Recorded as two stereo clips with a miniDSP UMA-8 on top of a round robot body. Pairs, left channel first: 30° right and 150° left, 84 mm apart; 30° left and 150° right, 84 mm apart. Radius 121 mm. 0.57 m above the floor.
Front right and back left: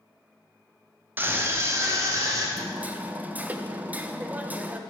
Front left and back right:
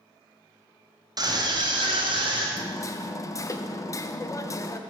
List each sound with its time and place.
1.2 s a scream: 150° right, 1.5 m; by 2.5 s 160° right, 2.5 m
2.6 s hammering: 80° left, 0.6 m